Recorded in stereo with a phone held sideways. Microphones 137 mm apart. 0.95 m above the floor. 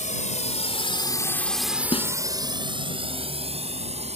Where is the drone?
70° left (ahead or behind); by 4.2 s 55° right (ahead or behind).